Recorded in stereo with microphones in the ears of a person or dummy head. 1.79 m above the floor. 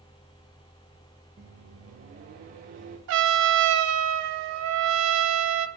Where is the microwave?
25° right (ahead or behind), 0.9 m.